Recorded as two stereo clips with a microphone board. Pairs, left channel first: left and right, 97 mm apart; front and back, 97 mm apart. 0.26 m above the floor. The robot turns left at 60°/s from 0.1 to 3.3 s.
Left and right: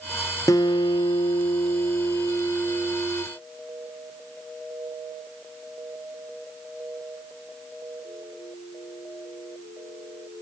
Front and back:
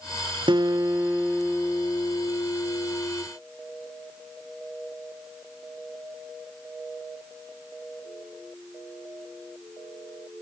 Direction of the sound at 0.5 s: 145° left.